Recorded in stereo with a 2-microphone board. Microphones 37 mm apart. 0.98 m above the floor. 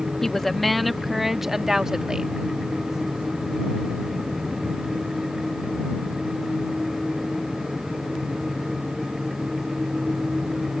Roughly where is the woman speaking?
Centre.